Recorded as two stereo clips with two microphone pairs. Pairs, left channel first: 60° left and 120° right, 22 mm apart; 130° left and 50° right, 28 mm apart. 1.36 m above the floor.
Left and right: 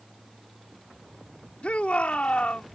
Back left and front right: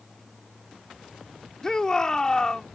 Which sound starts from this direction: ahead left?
A shout, at 1.6 s.